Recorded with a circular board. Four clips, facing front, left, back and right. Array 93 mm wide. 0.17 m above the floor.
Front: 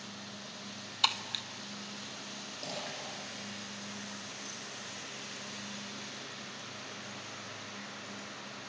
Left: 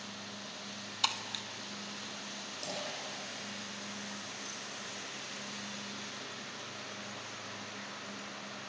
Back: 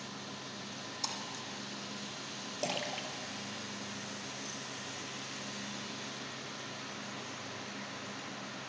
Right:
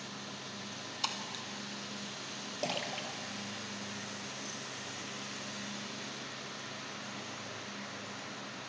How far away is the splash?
About 2 m.